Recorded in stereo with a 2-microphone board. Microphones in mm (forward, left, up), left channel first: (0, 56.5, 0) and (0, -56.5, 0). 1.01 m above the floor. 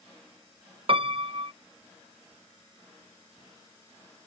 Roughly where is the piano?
Right.